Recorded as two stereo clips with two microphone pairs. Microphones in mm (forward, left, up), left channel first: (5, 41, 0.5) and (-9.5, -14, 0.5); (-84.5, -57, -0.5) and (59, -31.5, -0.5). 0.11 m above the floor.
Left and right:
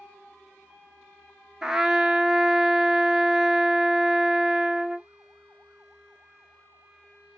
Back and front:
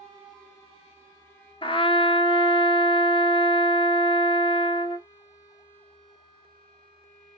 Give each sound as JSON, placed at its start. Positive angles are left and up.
{"t": 1.6, "sound": "a trumpet", "azimuth_deg": 175, "distance_m": 0.5}